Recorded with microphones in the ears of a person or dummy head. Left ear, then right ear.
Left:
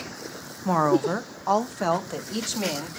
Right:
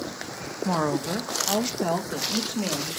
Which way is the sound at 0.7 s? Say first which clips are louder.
Left 5 dB; 15° left (ahead or behind).